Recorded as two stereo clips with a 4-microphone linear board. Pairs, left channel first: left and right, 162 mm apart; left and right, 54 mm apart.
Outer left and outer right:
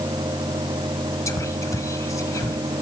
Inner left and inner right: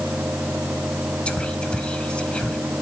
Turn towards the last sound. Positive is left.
turn(degrees=20)  # may be behind; listen again after turning